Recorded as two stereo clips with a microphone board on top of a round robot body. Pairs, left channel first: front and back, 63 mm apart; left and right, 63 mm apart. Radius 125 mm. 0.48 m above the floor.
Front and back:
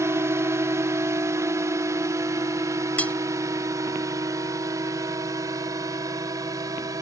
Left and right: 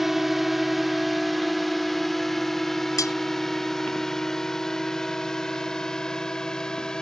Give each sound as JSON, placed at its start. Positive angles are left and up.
{"t": 0.0, "sound": "a drone", "azimuth_deg": -175}
{"t": 3.0, "sound": "cutlery clinking", "azimuth_deg": 65}